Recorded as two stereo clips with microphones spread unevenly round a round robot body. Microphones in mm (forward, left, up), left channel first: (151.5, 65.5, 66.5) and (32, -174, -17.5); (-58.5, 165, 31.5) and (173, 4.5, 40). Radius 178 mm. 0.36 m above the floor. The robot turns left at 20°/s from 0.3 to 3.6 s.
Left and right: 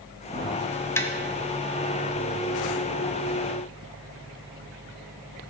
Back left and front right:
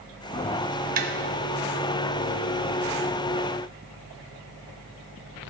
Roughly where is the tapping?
Ahead right.